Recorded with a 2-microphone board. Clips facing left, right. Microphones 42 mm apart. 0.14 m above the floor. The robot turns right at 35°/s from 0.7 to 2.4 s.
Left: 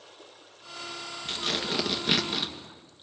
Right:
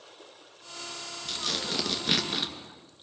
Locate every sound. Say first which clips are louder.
1.2 s tearing paper: left 2 dB; 145° left, 2.5 m; by 2.5 s 175° right, 2.5 m